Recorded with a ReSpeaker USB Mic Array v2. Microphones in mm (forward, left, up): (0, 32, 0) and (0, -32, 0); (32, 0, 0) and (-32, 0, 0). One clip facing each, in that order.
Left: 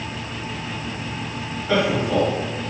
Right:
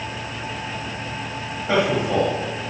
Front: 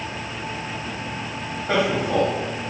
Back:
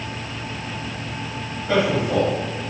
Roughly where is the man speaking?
Ahead right.